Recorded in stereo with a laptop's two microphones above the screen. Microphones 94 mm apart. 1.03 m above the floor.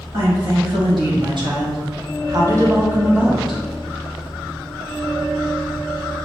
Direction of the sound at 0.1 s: 60° right (ahead or behind).